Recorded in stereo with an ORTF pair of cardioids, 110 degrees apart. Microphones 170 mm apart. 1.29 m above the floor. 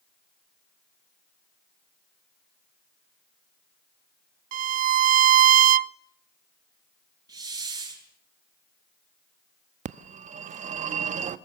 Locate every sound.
4.5 s a violin: 55° right, 0.6 m
7.3 s a hiss: 25° right, 7.5 m
9.8 s a phone ringing: 50° right, 1.3 m